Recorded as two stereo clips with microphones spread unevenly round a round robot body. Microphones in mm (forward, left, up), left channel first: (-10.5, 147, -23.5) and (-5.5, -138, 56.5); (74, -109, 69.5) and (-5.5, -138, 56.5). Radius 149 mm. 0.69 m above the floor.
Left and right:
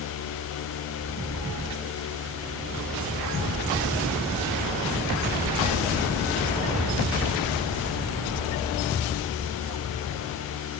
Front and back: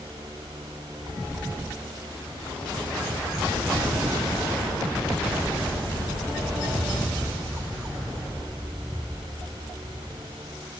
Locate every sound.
Only background noise.